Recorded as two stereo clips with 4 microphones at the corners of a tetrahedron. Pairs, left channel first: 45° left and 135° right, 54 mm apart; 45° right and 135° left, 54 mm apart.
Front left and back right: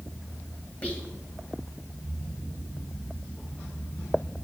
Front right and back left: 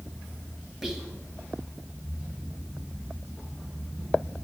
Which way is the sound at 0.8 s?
60° left.